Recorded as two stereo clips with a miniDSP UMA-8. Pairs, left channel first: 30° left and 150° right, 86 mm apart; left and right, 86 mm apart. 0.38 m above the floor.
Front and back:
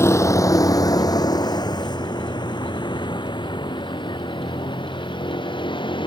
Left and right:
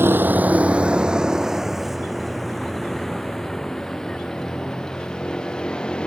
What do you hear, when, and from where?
0.0 s a vehicle: 30° right; by 6.1 s 10° left